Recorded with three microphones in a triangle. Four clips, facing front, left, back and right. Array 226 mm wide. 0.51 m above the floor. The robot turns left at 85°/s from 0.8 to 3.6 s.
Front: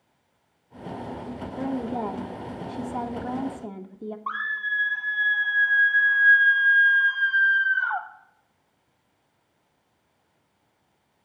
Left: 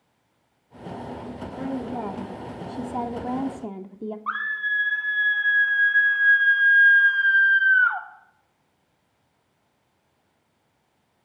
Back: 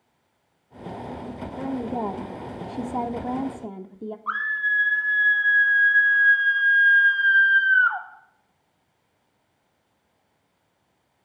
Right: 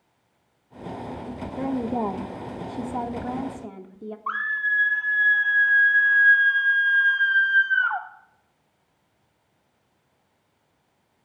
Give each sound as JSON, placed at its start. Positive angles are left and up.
{"t": 1.6, "sound": "a woman speaking", "azimuth_deg": -70, "distance_m": 0.8}
{"t": 4.3, "sound": "a scream", "azimuth_deg": -40, "distance_m": 1.5}